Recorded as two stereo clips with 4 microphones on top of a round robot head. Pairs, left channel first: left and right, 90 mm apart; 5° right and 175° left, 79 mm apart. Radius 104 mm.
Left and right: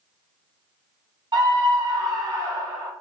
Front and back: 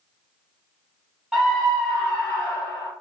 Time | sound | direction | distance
1.3 | a scream | 100° right | 1.2 m